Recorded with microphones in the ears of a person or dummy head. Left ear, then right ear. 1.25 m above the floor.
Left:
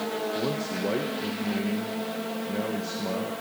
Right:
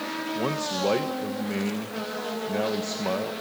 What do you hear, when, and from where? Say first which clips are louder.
0.3 s a man speaking: right 2 dB; 35° right (ahead or behind), 1.2 m